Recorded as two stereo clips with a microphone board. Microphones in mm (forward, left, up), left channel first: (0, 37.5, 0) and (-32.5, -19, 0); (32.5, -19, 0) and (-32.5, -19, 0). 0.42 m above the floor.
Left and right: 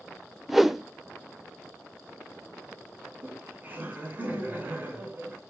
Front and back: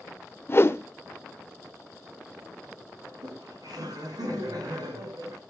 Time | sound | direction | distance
0.5 | a whoosh | 35° right | 0.7 m
3.0 | laughter | straight behind | 4.5 m